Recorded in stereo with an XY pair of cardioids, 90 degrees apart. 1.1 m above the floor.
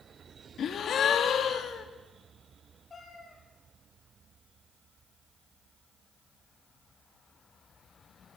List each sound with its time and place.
0.6 s a gasp: 65° left, 1.9 m
2.9 s a cat meowing: 40° left, 5.5 m